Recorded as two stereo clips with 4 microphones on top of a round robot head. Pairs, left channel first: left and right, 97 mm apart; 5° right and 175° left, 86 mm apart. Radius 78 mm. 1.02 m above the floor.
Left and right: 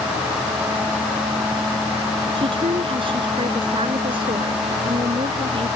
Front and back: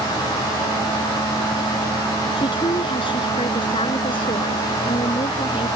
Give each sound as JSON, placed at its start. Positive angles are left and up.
{"t": 2.4, "sound": "a woman speaking", "azimuth_deg": -45}